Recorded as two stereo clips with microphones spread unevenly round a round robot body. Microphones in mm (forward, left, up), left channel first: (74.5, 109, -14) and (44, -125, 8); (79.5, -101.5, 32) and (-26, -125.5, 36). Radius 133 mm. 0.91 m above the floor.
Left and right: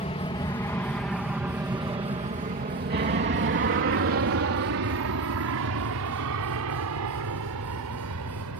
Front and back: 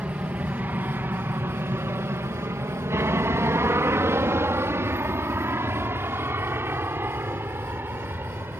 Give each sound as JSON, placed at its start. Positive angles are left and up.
{"t": 0.0, "sound": "an aircraft", "azimuth_deg": 120}